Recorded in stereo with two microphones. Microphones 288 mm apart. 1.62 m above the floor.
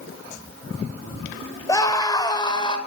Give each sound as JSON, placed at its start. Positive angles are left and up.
{"t": 1.7, "sound": "a scream", "side_deg": 10, "distance_m": 6.0}